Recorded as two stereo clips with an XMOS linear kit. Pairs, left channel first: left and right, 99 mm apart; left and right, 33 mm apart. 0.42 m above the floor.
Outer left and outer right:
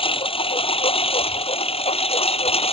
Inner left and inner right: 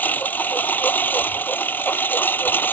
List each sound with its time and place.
0.0 s a lawn mower: 65° left (ahead or behind); by 2.7 s 90° left